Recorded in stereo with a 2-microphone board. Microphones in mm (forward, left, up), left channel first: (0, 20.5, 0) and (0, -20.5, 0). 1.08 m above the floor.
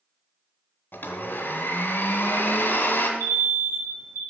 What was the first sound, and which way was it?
A blender, 45° left (ahead or behind).